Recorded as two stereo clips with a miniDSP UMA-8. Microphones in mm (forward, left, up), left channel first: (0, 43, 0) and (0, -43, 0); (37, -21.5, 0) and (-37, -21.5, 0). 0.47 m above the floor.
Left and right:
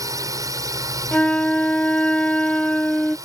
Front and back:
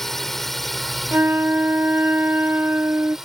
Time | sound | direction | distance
0.0 | a drone | 80° right | ?
1.1 | a flute | 150° left | ?